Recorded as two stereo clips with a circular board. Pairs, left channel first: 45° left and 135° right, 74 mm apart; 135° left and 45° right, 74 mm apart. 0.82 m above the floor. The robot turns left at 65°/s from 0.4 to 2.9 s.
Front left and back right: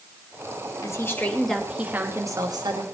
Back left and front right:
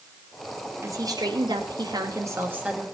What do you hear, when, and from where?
0.8 s a woman speaking: 5° left, 2.5 m; by 2.9 s 125° right, 2.5 m